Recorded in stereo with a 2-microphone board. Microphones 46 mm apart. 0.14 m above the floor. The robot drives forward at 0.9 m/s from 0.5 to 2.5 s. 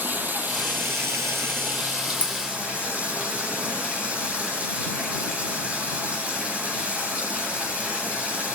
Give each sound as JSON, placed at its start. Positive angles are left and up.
{"t": 0.0, "sound": "running water", "side_deg": -45, "distance_m": 0.9}
{"t": 2.2, "sound": "a dropped coin", "side_deg": 35, "distance_m": 0.7}